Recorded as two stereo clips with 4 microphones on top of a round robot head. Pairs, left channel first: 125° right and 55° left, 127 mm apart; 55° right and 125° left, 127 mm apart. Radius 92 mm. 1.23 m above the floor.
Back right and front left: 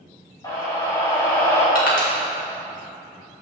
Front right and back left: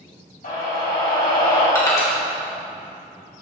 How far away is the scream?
About 3.5 m.